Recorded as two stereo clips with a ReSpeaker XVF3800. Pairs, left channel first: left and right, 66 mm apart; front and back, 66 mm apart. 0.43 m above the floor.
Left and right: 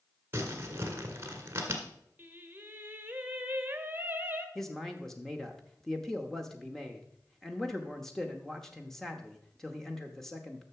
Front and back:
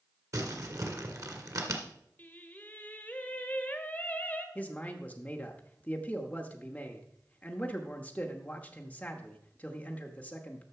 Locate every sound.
0.3 s crumpling: 145° right, 1.7 m
2.2 s singing: 50° right, 1.1 m
4.5 s a man speaking: 10° left, 0.8 m